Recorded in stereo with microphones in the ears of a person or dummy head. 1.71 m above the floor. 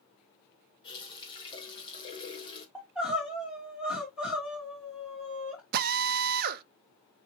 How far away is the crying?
About 1.9 m.